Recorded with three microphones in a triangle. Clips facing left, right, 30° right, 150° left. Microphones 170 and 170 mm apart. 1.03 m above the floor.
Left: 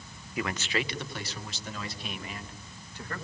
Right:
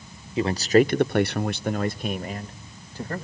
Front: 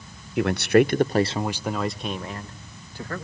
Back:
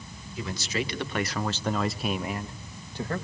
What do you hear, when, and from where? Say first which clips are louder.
0.4 s a man speaking: right 13 dB, front 14 dB; 25° right, 0.6 m; by 3.3 s 145° right, 1.4 m